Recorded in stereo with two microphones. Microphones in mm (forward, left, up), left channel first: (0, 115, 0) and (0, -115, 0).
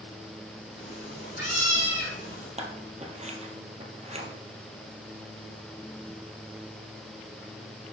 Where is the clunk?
No clunk in this recording.